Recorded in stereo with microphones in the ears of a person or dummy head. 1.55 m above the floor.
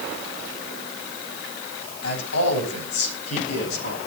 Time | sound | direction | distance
2.0 | a man speaking | 80° left | 8 m